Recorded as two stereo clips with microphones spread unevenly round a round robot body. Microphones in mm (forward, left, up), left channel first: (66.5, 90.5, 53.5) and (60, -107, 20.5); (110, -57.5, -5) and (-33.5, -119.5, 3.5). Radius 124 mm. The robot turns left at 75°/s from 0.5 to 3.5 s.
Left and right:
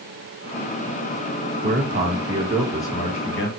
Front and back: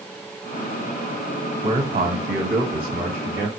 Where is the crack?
I don't hear a crack.